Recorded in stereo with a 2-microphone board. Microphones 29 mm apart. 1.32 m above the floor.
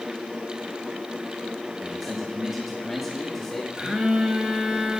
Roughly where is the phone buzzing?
Right.